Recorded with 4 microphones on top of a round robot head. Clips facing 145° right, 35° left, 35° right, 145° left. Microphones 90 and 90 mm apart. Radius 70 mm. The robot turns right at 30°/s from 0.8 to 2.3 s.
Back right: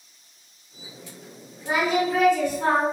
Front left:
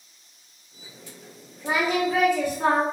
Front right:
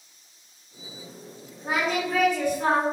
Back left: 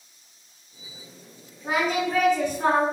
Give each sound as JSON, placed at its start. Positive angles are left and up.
{"t": 1.6, "sound": "singing", "azimuth_deg": 55, "distance_m": 0.8}